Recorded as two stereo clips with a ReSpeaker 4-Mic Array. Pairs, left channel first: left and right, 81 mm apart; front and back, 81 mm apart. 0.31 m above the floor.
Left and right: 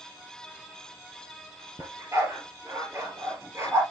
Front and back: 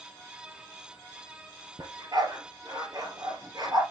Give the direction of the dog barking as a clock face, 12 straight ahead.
5 o'clock.